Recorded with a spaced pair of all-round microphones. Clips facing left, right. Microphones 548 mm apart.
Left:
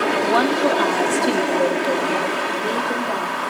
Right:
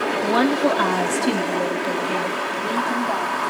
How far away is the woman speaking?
About 1.3 m.